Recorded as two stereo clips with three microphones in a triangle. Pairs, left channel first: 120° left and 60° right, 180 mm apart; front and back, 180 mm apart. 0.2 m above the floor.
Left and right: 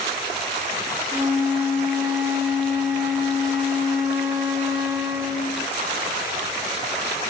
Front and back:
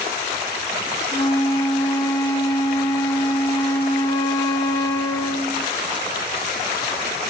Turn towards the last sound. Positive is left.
turn(degrees=-5)